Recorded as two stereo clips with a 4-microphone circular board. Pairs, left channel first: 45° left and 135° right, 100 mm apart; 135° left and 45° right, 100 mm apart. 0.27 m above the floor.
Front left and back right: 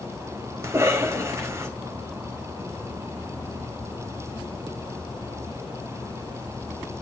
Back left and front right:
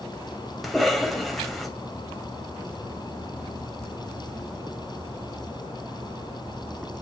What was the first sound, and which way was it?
A cough, 135° right.